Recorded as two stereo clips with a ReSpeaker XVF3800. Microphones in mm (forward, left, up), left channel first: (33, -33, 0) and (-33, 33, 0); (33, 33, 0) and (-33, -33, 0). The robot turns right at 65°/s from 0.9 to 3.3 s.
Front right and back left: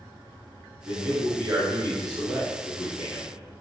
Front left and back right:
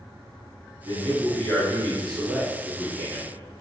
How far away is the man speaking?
About 1.4 m.